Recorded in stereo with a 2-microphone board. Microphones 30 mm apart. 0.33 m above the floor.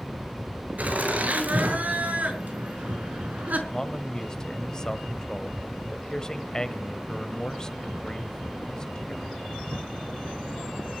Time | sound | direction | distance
0.8 | laughter | 55° right (ahead or behind) | 6 m
3.7 | a man speaking | 25° left (ahead or behind) | 1.2 m